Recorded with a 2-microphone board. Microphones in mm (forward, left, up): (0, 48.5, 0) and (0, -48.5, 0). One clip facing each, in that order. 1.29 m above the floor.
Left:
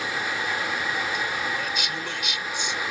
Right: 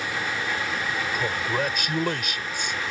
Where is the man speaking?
50° right (ahead or behind).